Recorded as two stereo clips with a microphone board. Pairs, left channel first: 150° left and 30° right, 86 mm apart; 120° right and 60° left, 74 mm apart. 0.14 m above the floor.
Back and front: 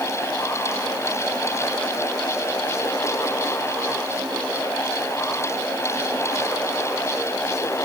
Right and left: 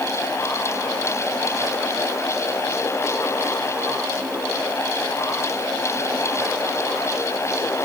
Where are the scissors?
No scissors in this recording.